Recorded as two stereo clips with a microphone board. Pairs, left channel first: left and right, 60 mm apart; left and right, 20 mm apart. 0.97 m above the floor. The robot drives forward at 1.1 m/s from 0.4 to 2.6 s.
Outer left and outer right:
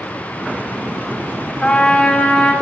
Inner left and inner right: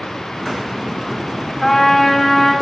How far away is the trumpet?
About 3 m.